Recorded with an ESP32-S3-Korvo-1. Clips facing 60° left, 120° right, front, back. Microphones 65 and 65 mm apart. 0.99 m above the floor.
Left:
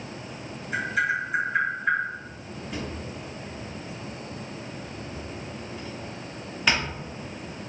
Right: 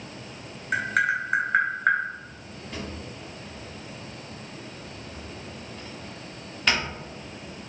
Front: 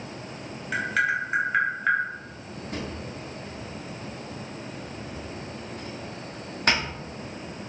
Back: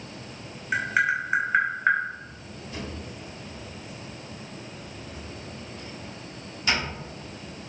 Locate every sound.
0.7 s tapping: 110° right, 1.3 m
2.7 s a drawer: 25° right, 1.1 m